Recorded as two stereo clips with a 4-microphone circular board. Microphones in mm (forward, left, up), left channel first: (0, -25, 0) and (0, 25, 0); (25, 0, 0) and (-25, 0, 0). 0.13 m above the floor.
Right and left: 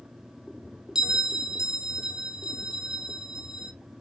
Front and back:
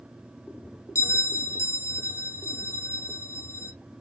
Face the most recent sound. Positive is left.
turn(degrees=15)